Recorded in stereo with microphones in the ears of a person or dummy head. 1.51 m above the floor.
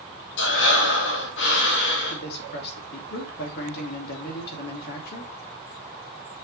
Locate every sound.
0.4 s breathing: 65° left (ahead or behind), 2 m
2.1 s a man speaking: 60° left (ahead or behind), 2.5 m